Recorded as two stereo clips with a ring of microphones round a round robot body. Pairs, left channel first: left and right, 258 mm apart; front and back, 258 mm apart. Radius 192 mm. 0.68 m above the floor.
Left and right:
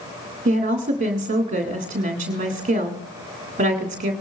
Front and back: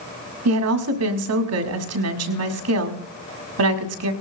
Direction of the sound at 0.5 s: 155° right.